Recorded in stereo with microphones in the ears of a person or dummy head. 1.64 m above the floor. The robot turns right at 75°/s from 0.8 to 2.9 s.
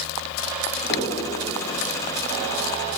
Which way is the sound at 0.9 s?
35° left (ahead or behind).